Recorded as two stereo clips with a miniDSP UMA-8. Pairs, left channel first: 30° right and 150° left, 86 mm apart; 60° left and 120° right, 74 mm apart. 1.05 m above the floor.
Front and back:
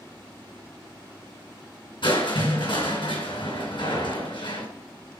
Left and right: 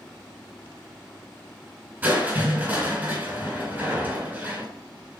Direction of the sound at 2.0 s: 50° right.